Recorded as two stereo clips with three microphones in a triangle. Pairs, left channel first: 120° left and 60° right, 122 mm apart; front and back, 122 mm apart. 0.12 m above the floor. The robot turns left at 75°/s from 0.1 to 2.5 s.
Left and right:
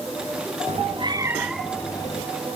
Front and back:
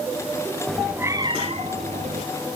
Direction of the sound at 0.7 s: 80° right.